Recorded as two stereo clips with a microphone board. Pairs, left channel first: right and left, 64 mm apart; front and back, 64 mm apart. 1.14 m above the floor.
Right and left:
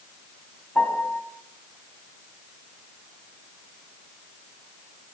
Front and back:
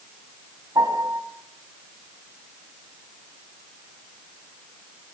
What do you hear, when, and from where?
0.8 s a piano: 160° right, 5 m